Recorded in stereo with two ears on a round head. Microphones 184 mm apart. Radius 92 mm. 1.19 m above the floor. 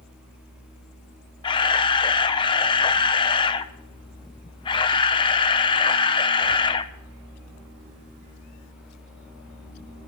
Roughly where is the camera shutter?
Left.